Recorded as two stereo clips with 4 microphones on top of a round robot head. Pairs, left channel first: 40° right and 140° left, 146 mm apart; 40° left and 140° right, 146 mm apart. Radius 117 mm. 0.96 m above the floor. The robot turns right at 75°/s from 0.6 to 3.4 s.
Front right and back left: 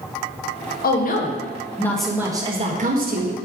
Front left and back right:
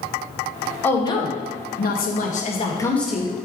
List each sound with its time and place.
0.8 s a woman speaking: 40° right, 1.3 m; by 3.3 s 150° left, 1.3 m